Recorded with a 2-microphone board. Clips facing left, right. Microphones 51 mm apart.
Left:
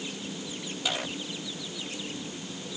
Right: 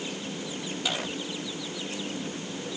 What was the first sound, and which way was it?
Only background noise.